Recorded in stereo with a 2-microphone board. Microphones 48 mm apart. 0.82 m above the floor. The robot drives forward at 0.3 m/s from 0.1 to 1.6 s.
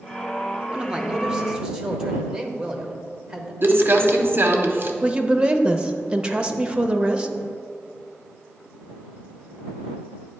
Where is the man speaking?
20° right (ahead or behind), 0.6 m; by 3.5 s 15° right (ahead or behind), 0.8 m.